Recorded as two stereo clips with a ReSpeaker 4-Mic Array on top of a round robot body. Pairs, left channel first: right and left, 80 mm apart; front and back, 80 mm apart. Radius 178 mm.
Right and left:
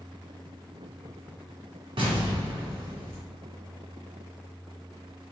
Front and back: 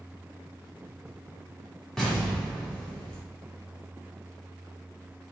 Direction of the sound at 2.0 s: 85° left.